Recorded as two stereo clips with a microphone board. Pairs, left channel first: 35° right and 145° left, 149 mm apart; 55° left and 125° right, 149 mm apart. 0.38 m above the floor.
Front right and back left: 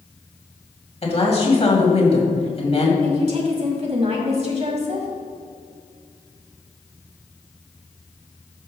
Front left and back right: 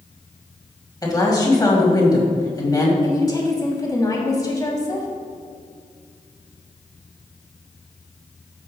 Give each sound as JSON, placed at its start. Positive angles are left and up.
{"t": 1.0, "sound": "a woman speaking", "azimuth_deg": 0, "distance_m": 2.0}
{"t": 3.0, "sound": "a woman speaking", "azimuth_deg": 115, "distance_m": 2.0}